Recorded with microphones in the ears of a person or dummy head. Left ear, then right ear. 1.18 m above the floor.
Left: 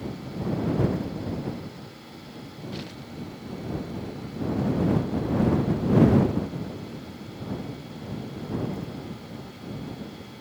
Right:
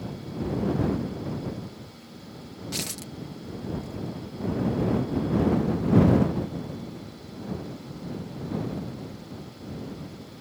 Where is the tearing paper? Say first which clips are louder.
Right 8 dB; 70° right (ahead or behind).